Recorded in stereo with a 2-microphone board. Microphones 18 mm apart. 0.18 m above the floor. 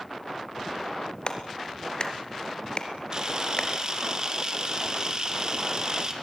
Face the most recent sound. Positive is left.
turn(degrees=-45)  # may be behind; listen again after turning